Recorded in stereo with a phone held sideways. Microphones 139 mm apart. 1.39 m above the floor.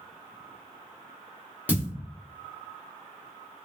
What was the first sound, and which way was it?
A thud, 10° right (ahead or behind).